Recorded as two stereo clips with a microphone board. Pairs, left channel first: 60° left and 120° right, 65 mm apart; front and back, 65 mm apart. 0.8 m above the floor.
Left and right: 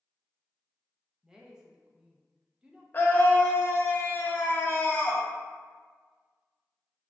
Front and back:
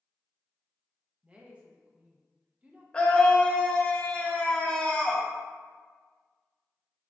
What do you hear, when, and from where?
1.2 s a woman speaking: straight behind, 0.6 m
2.9 s a scream: 55° left, 0.7 m